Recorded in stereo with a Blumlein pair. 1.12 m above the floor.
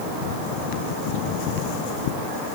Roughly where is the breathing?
No breathing in this recording.